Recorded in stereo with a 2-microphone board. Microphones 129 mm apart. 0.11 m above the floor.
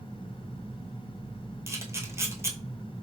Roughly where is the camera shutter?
Right.